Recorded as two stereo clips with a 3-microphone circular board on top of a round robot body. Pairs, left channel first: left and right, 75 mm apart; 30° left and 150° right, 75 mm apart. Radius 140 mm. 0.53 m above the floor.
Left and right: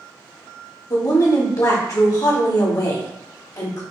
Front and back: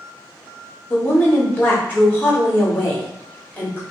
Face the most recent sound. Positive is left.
turn(degrees=90)